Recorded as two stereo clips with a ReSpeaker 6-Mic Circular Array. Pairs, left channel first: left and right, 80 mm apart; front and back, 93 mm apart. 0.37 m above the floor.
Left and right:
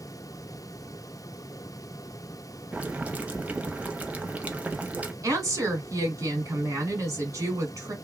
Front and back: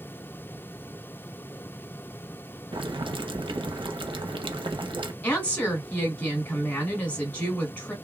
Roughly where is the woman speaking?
Ahead right.